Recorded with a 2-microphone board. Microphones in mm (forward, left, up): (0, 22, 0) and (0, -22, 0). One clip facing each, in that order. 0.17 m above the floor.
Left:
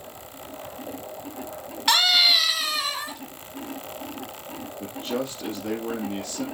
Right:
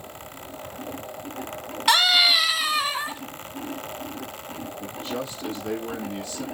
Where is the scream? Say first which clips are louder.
Right 1 dB; 5° right (ahead or behind), 1.7 m; by 3.2 s 20° right (ahead or behind), 1.8 m.